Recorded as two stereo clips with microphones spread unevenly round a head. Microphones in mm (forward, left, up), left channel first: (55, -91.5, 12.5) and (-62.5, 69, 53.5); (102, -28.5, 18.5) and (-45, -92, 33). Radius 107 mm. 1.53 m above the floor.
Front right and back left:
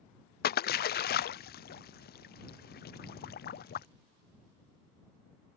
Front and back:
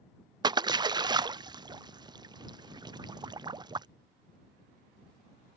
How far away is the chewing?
No chewing in this recording.